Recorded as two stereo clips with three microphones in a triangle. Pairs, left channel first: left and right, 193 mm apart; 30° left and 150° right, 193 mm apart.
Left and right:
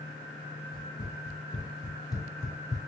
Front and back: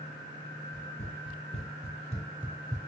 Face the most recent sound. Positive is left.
turn(degrees=155)